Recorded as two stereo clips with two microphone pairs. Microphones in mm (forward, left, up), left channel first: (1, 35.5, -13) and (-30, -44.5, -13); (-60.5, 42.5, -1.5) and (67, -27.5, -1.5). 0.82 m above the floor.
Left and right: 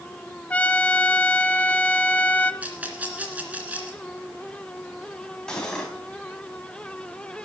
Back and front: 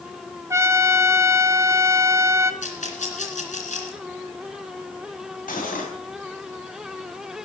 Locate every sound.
0.5 s a trumpet: 15° left, 0.7 m
2.6 s a rattle: 175° left, 2.5 m
5.5 s cutlery clinking: 150° left, 3 m